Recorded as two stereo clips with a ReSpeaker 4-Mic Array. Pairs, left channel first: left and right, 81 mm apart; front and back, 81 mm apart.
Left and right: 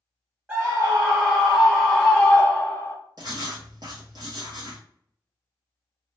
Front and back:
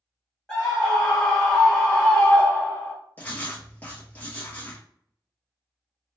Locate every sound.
0.5 s a scream: 65° right, 1.7 m; by 3.0 s 55° left, 1.7 m
3.2 s writing: 65° right, 1.4 m